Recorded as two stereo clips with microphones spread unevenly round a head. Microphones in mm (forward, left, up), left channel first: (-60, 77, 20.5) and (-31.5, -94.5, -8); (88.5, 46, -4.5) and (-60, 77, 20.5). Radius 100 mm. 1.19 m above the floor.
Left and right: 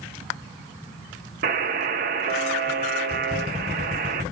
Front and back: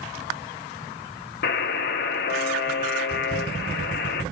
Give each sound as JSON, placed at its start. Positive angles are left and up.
{"t": 1.4, "sound": "a buzzer", "azimuth_deg": -35, "distance_m": 0.5}